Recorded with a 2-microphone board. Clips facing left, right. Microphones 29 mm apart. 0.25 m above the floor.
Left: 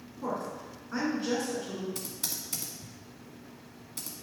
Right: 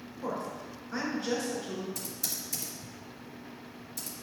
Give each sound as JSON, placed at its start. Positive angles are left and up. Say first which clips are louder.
{"t": 0.2, "sound": "a woman speaking", "louder": "left 1 dB", "side_deg": 25, "distance_m": 3.0}
{"t": 1.9, "sound": "typing on a keyboard", "louder": "even", "side_deg": 55, "distance_m": 1.6}